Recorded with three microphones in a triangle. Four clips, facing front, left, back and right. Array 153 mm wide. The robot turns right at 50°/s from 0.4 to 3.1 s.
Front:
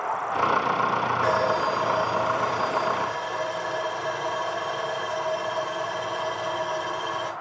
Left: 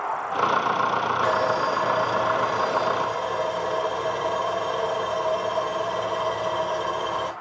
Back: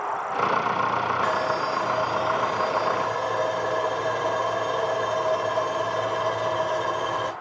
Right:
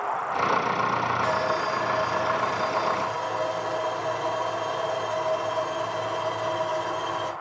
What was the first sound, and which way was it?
Sawing, 45° left.